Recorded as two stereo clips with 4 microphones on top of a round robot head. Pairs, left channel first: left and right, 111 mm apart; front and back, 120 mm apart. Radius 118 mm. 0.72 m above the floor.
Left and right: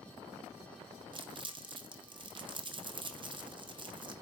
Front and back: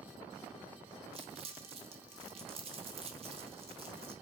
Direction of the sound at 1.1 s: 135° right.